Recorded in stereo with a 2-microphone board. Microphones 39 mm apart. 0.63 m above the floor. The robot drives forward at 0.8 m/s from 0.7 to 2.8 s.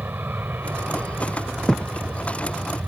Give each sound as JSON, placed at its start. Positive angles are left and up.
{"t": 0.0, "sound": "an aircraft", "side_deg": -55}
{"t": 1.7, "sound": "a thud", "side_deg": 15}